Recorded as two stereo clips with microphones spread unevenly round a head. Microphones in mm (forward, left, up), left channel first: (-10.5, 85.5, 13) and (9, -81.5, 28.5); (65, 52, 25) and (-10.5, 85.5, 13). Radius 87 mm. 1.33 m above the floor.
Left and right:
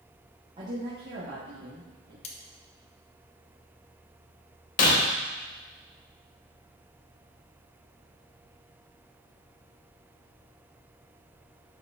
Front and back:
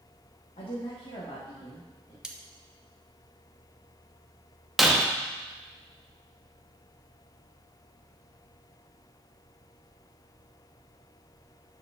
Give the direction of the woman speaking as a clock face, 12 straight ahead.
1 o'clock.